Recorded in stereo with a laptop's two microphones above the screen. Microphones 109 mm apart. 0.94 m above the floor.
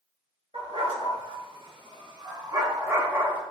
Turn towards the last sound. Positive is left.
turn(degrees=-15)  # may be behind; listen again after turning